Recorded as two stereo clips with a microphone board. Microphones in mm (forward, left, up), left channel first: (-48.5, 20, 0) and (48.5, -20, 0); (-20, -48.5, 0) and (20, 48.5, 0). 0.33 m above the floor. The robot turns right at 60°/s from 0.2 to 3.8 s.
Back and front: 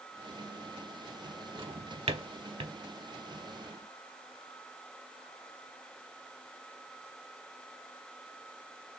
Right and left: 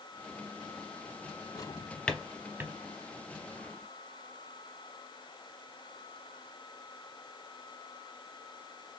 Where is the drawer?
65° right, 0.6 m; by 2.8 s 10° left, 0.6 m.